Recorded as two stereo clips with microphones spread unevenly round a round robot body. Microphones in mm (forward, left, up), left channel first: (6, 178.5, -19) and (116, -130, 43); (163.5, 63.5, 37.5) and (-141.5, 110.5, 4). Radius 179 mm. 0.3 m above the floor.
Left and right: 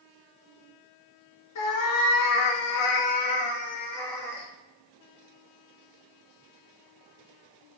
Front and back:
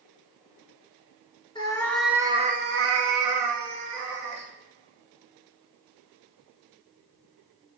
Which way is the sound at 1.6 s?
65° left.